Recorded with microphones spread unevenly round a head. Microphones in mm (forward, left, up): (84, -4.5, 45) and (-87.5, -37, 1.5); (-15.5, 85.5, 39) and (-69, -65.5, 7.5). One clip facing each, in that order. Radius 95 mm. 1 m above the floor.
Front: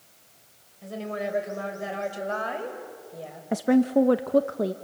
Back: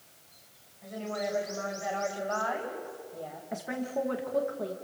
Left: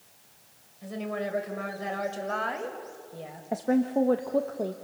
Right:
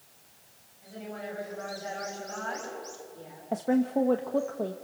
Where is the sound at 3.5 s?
15° right, 0.8 m.